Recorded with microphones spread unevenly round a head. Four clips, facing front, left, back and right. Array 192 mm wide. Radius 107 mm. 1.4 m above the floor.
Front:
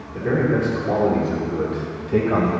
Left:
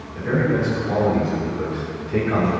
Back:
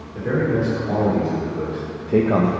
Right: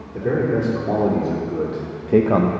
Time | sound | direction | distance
0.1 | a man speaking | 75° right | 4 m